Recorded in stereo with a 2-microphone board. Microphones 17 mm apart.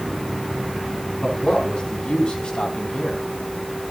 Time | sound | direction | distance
1.2 | a man speaking | 80° left | 5.5 m